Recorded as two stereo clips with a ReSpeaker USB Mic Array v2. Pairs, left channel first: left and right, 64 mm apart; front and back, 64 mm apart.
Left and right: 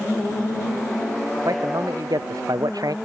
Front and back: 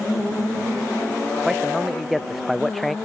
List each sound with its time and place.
1.4 s a man speaking: 95° right; by 3.0 s 90° right